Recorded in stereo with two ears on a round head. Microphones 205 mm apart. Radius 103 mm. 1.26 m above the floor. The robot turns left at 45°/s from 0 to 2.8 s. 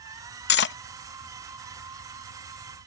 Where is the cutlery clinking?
45° left (ahead or behind); by 0.8 s 55° left (ahead or behind).